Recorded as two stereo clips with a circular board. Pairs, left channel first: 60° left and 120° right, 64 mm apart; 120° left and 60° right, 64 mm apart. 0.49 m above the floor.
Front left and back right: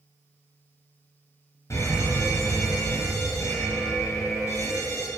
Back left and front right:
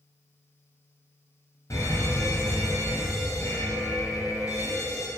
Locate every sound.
1.7 s a fire alarm: 95° left, 4 m